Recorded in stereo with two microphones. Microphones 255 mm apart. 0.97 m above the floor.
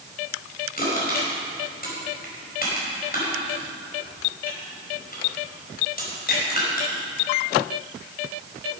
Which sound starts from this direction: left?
Crushing, at 0.8 s.